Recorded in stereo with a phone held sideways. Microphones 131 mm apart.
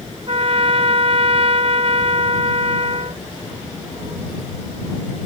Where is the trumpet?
45° right (ahead or behind).